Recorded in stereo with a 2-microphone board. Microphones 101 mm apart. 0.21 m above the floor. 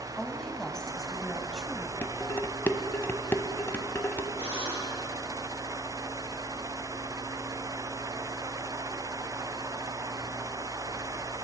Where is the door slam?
I don't hear a door slam.